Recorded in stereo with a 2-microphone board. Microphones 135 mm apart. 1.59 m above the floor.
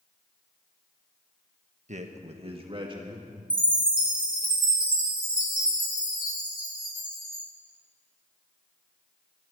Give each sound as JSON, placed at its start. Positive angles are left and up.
{"t": 1.9, "sound": "a man speaking", "side_deg": -60, "distance_m": 1.3}
{"t": 3.5, "sound": "a chime", "side_deg": -40, "distance_m": 2.5}